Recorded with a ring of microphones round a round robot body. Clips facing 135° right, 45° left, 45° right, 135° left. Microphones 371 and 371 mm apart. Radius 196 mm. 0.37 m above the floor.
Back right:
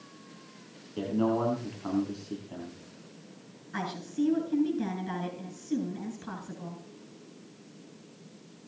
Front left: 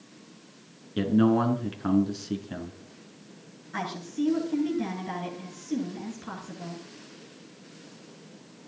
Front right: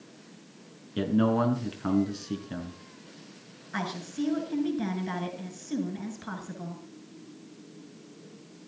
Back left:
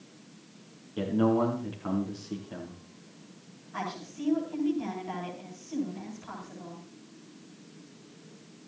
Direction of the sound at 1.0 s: 5° right.